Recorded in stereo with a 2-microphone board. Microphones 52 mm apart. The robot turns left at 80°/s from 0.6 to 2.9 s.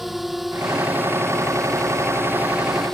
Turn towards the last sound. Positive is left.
turn(degrees=175)